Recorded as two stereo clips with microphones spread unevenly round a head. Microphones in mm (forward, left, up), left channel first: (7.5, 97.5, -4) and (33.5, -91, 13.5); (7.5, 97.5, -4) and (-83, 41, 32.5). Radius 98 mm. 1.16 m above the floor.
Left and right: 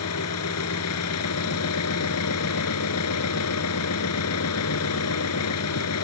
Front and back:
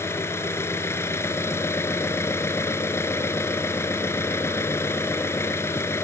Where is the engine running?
100° left.